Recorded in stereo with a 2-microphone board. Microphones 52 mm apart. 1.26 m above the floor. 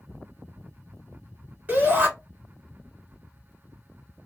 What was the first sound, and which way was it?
A shout, 30° right (ahead or behind).